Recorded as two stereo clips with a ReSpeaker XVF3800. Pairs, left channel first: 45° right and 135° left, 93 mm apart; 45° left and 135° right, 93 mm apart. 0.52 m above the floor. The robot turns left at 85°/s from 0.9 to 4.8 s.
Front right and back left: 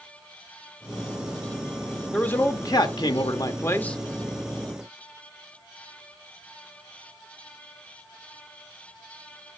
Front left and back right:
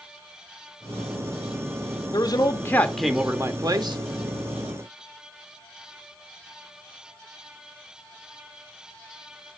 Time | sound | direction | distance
2.1 | a man speaking | 35° left | 1.1 m